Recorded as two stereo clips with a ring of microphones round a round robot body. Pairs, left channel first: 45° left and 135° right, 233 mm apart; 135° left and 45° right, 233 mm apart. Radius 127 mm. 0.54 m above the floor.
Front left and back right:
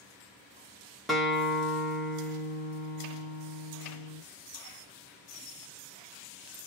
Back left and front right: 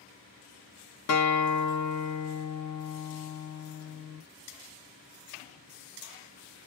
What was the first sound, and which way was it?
A guitar, 135° left.